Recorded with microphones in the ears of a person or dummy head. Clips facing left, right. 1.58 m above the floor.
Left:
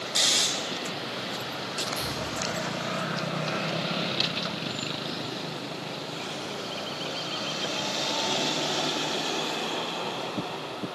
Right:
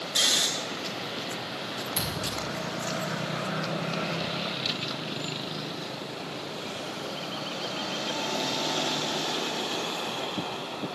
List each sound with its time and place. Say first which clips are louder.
0.1 s snoring: even; 15° right (ahead or behind), 1.8 m
2.0 s a thud: left 1 dB; 50° right (ahead or behind), 6 m